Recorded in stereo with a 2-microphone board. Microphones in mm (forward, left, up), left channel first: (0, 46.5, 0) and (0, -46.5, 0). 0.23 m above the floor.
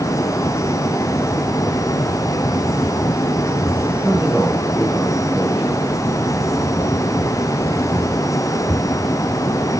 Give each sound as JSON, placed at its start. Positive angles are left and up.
{"t": 4.0, "sound": "a man speaking", "side_deg": -5, "distance_m": 8.5}